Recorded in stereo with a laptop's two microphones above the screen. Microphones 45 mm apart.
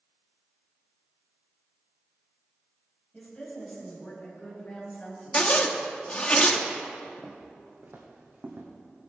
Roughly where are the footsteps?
Right.